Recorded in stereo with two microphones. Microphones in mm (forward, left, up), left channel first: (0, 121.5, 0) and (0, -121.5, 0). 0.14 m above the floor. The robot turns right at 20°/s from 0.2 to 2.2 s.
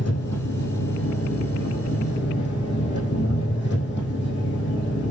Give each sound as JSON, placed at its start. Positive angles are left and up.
{"t": 0.0, "sound": "an engine running", "azimuth_deg": 95, "distance_m": 5.5}